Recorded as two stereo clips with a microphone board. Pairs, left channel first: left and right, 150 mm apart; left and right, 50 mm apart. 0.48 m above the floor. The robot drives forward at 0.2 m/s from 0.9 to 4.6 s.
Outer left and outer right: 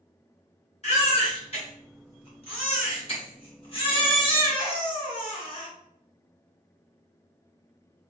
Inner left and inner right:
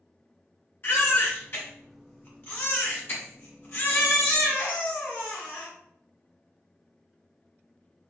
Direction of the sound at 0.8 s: 45° left (ahead or behind).